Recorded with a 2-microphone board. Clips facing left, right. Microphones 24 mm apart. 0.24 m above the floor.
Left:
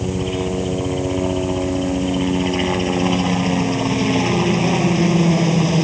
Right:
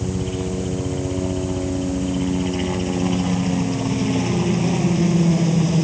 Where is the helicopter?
20° left (ahead or behind).